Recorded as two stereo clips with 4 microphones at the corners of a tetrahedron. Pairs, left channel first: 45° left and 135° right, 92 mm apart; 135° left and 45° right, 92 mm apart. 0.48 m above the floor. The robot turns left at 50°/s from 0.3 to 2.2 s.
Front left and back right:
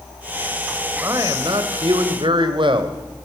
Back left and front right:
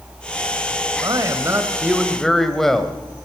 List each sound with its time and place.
1.0 s a man speaking: 80° right, 2 m; by 3.0 s 140° right, 2 m